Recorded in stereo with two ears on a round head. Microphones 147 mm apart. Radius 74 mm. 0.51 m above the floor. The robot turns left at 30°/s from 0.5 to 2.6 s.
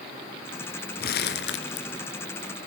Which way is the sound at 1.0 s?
60° left (ahead or behind).